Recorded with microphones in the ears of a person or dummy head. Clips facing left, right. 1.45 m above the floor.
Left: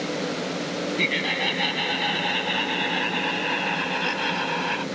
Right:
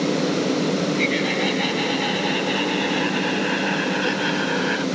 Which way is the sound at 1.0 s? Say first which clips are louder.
Right 6 dB; 5° left (ahead or behind).